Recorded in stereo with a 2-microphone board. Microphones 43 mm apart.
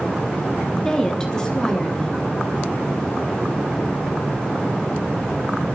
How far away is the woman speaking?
About 1.4 m.